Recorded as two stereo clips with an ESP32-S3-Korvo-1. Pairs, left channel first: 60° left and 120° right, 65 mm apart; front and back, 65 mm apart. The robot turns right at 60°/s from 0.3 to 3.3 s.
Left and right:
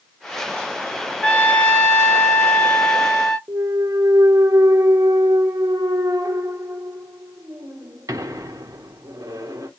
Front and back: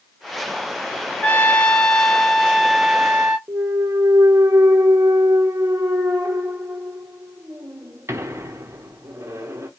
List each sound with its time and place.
1.2 s a trumpet: 10° left, 0.8 m; by 3.4 s 135° left, 0.8 m
3.5 s a clunk: 135° right, 0.8 m